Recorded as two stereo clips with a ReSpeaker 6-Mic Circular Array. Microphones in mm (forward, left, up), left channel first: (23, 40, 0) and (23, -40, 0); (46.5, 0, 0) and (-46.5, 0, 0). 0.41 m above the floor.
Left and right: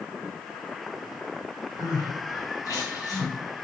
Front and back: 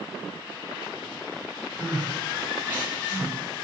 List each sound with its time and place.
1.8 s crying: 115° left, 3 m